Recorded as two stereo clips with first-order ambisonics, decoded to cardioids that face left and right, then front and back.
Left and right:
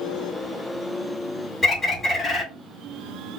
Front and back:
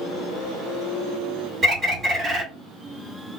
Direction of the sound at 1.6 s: 145° left.